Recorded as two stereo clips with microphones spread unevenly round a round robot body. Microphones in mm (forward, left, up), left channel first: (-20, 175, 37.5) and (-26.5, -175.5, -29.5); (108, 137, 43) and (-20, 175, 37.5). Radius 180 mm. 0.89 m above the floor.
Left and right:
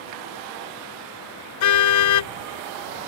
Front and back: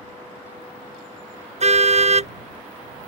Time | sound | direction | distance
1.6 | a car horn | 130° left | ?